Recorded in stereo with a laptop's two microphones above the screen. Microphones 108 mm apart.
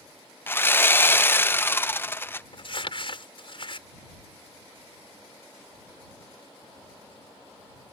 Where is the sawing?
20° left (ahead or behind).